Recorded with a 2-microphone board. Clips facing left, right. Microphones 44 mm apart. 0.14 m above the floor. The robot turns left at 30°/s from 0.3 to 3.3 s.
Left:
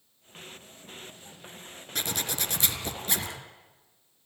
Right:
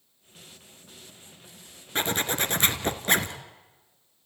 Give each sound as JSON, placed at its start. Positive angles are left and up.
{"t": 1.9, "sound": "a zipper", "azimuth_deg": -40, "distance_m": 1.6}